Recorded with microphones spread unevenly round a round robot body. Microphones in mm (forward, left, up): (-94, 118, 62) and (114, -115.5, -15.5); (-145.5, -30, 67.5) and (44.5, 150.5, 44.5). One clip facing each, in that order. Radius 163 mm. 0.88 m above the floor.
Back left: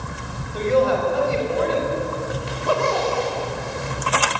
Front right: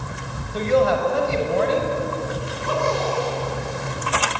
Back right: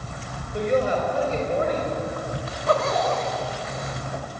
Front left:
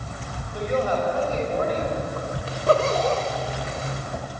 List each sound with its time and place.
0.5 s a woman speaking: 65° right, 5.5 m
2.5 s a zipper: 100° left, 2.5 m